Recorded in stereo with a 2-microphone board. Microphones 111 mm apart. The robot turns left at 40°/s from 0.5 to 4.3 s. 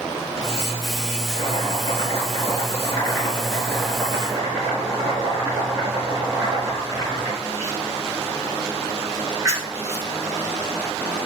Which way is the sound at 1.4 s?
90° left.